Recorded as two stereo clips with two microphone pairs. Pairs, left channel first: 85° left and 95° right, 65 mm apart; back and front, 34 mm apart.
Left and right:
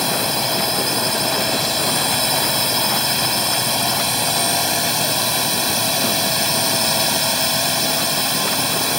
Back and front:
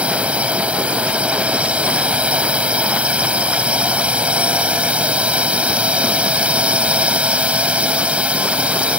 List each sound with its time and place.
0.0 s a drone: straight ahead